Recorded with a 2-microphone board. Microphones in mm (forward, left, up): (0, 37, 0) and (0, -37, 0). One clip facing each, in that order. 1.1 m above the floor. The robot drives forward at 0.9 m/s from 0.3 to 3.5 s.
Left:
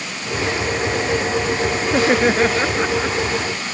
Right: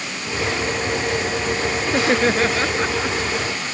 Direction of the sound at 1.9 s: 10° left (ahead or behind).